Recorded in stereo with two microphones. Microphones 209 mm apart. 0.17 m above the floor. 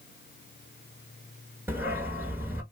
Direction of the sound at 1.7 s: 10° right (ahead or behind).